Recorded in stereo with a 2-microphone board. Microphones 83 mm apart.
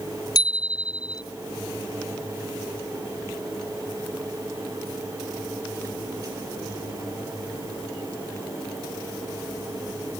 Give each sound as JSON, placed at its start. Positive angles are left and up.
{"t": 0.3, "sound": "a bicycle bell", "side_deg": 55}